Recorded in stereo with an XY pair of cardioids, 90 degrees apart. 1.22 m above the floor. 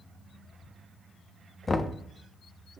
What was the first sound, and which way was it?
Knocking, 30° left.